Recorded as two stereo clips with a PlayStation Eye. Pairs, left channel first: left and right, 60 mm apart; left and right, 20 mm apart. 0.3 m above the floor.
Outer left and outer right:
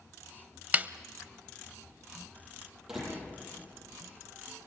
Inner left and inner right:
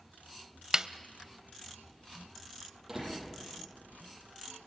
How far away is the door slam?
About 7 m.